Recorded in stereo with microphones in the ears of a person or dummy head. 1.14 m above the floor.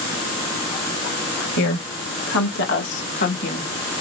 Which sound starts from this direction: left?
A woman speaking, at 1.6 s.